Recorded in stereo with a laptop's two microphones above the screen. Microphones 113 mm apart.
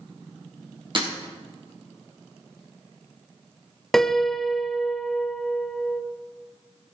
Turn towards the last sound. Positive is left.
turn(degrees=5)  # may be behind; listen again after turning